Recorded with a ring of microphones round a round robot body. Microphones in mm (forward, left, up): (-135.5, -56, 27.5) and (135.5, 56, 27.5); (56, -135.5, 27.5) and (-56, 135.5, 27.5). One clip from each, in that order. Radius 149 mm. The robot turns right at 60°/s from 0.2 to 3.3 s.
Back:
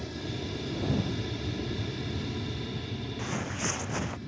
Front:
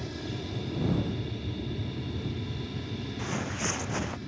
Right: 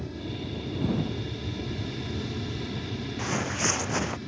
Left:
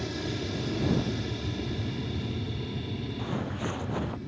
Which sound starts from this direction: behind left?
An aircraft, at 0.0 s.